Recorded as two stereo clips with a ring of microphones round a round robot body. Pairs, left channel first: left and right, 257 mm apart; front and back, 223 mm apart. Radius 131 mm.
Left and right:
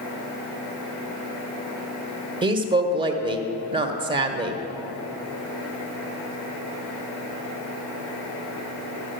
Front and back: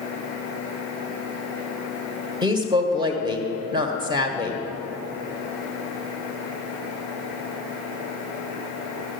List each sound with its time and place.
2.4 s a woman speaking: 135° right, 1.1 m